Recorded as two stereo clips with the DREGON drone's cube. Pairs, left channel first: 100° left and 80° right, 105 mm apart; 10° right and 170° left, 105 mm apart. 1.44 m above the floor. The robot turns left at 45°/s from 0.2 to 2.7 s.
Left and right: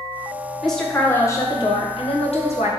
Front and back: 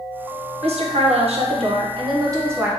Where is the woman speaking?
170° right, 1.0 m; by 2.7 s 95° left, 1.0 m.